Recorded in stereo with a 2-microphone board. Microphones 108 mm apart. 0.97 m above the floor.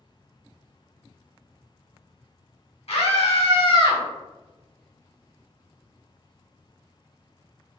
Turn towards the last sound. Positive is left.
turn(degrees=45)  # may be behind; listen again after turning